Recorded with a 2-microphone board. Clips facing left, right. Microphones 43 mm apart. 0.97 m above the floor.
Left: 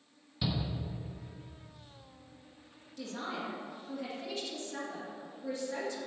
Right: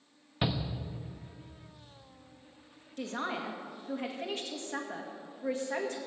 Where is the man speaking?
50° right (ahead or behind), 1.7 m.